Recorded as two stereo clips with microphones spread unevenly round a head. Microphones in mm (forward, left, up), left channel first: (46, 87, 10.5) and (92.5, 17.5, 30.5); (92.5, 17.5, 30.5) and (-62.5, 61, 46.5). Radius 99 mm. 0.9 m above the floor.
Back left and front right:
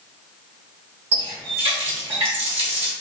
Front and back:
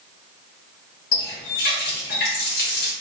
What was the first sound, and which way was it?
A running tap, 55° right.